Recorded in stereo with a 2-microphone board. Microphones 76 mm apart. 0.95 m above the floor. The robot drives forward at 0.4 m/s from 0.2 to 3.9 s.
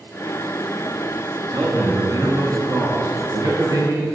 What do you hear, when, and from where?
1.5 s a man speaking: 65° right (ahead or behind), 1.4 m; by 4.0 s 45° right (ahead or behind), 1.7 m